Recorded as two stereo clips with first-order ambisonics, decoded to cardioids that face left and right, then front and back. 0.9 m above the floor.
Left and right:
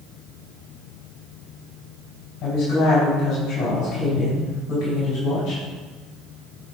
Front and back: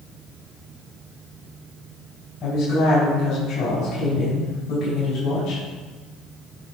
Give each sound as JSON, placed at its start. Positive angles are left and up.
{"t": 2.4, "sound": "a woman speaking", "azimuth_deg": 45, "distance_m": 4.0}